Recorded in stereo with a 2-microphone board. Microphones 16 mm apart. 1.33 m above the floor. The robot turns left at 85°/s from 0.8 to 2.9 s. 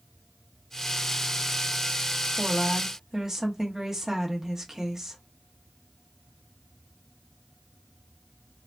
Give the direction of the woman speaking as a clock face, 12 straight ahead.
4 o'clock.